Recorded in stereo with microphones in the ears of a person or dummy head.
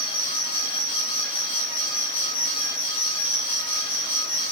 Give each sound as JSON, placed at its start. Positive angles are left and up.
{"t": 0.0, "sound": "an insect", "side_deg": 25, "distance_m": 2.5}